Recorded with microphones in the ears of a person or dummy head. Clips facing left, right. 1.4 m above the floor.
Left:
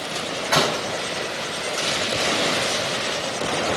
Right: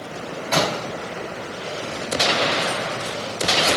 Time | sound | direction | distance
0.5 | a door slam | 5° left (ahead or behind) | 6.5 m